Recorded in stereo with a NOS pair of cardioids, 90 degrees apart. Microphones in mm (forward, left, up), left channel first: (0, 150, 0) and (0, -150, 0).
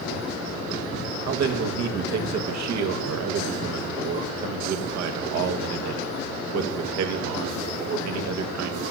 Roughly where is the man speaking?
Ahead right.